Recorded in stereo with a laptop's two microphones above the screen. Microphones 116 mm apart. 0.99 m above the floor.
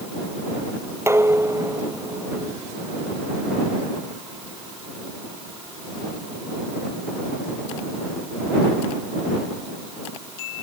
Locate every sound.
1.1 s dishes clattering: 20° right (ahead or behind)